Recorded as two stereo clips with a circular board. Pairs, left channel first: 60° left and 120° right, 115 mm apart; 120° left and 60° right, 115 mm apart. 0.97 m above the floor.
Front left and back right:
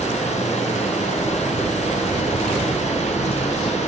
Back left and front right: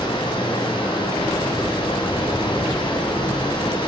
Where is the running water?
70° left, 6.5 m.